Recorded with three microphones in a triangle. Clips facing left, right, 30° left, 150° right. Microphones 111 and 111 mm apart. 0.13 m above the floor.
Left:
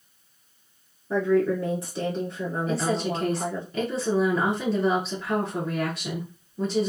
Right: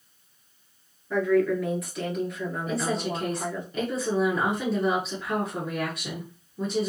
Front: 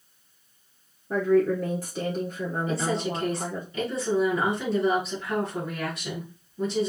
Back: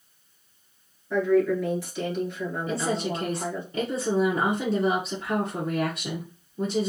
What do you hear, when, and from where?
1.1 s a woman speaking: 45° left, 1.6 m
2.7 s a woman speaking: 175° left, 1.5 m